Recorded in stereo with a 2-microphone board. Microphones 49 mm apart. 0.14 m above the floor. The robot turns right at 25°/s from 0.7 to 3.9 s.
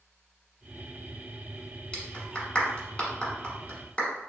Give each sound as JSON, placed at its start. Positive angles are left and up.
{"t": 1.9, "sound": "a clap", "side_deg": 20, "distance_m": 1.2}